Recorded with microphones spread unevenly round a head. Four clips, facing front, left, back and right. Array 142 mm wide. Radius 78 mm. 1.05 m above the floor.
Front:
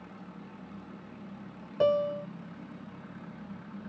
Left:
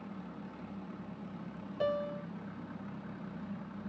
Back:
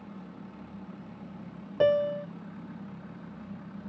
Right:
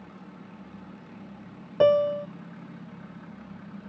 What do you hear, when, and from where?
1.8 s a piano: 110° right